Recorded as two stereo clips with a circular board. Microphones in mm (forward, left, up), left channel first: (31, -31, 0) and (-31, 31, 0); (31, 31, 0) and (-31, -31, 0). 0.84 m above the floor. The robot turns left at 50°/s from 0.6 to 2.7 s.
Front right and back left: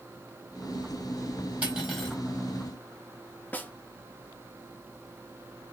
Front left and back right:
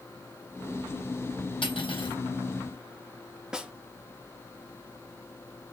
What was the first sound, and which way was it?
Cutlery clinking, 60° left.